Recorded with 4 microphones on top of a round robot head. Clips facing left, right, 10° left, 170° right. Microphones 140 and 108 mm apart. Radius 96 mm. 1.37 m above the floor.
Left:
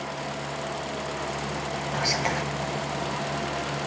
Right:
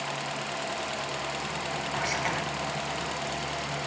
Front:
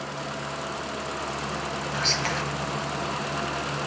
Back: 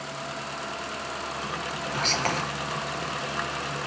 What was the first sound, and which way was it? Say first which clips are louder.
Whispering: left 4 dB, back 3 dB; 145° left.